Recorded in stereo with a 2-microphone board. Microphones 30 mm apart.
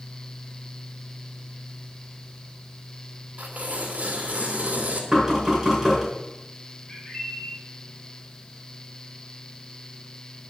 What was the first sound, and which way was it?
Tearing paper, 55° right (ahead or behind).